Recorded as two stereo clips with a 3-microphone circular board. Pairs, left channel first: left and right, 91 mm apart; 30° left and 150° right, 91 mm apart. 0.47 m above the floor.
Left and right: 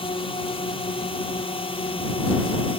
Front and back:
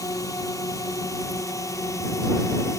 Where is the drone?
80° left; by 2.8 s 85° left.